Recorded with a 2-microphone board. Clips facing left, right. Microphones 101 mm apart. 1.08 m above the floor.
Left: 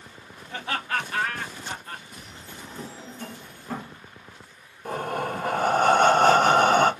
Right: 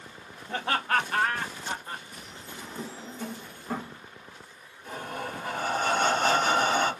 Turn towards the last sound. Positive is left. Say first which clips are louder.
# left 7 dB
turn(degrees=60)  # may be behind; listen again after turning